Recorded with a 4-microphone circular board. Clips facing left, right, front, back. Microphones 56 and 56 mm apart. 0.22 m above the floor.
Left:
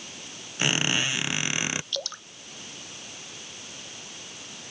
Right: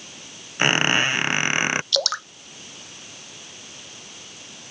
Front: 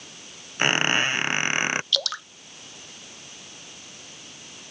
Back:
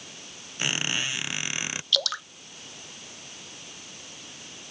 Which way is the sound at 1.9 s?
90° right.